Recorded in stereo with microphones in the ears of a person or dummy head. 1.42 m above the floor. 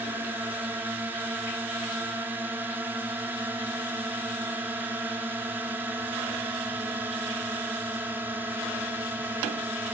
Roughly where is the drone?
Centre.